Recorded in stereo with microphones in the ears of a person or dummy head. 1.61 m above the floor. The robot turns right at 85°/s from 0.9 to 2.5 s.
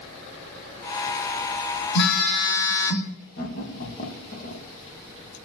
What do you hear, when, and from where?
1.9 s a phone buzzing: 120° left, 1.3 m; by 3.1 s 170° left, 1.3 m
3.4 s laughter: 50° left (ahead or behind), 2.5 m